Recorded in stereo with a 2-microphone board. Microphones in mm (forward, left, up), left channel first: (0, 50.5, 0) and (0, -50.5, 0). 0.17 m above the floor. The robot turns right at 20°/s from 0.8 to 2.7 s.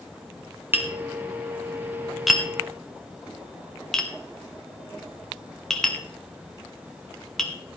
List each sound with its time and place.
0.7 s tapping: 20° right (ahead or behind), 1.7 m; by 7.5 s 5° left (ahead or behind), 1.7 m